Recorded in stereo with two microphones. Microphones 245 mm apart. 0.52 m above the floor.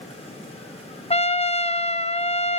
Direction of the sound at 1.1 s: 25° left (ahead or behind).